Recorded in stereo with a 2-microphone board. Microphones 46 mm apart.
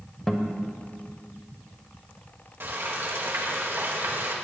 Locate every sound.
0.3 s a guitar: 10° left (ahead or behind), 1.2 m
2.6 s frying: 55° right (ahead or behind), 2 m